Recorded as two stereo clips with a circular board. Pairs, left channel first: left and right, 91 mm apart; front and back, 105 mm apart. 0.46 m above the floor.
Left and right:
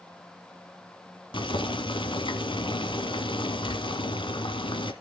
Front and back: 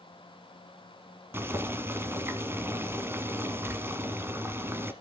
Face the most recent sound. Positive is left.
turn(degrees=110)